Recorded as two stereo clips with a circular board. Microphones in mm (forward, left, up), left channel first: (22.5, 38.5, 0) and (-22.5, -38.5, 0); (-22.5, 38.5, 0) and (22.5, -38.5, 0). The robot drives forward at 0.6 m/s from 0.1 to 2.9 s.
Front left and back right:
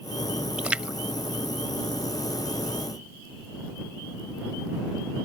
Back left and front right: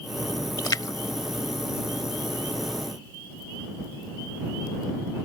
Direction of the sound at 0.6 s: 160° left.